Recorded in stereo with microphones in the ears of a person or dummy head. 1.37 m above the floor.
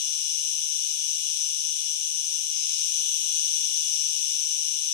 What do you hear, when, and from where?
0.0 s an insect: 55° left (ahead or behind), 0.9 m